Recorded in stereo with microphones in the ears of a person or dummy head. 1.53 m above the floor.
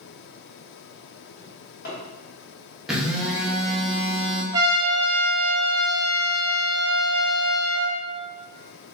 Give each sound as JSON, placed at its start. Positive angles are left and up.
{"t": 1.4, "sound": "a drawer", "side_deg": 60, "distance_m": 1.8}
{"t": 2.9, "sound": "a phone buzzing", "side_deg": -5, "distance_m": 0.7}
{"t": 4.5, "sound": "a trumpet", "side_deg": -20, "distance_m": 0.6}